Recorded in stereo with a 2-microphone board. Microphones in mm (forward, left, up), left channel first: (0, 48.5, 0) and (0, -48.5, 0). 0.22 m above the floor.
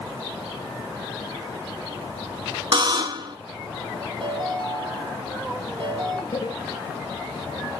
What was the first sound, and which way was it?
A buzzer, 55° right (ahead or behind).